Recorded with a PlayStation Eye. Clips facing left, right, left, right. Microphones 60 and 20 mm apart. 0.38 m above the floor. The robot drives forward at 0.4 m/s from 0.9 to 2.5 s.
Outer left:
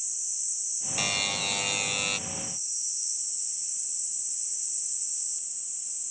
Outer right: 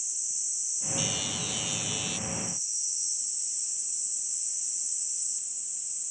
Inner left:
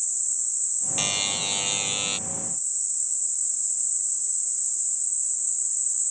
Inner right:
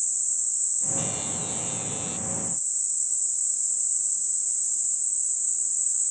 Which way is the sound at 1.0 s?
60° left (ahead or behind).